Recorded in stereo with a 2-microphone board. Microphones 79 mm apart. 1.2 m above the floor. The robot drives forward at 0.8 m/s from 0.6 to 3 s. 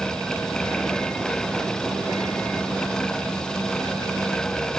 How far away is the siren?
No siren in this recording.